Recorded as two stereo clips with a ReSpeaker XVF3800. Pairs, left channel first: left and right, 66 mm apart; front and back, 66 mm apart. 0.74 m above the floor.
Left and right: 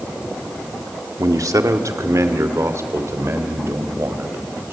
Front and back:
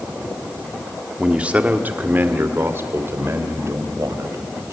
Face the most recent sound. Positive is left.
turn(degrees=-140)